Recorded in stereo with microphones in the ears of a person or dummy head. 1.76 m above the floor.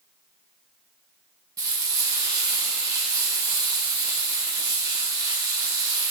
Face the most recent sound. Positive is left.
turn(degrees=-15)  # may be behind; listen again after turning